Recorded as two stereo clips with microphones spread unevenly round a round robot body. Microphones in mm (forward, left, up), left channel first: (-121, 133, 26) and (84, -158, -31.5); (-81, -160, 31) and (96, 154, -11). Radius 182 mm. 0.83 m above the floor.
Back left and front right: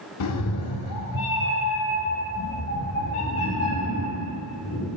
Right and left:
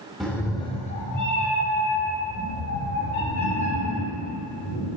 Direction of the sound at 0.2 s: 155° left.